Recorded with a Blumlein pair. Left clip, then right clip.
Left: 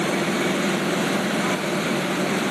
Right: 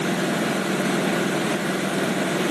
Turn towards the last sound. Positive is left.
No sound to turn to.